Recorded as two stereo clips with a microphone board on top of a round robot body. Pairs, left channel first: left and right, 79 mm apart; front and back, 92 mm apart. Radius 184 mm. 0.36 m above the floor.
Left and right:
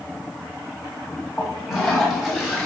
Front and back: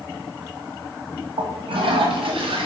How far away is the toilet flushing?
About 4 m.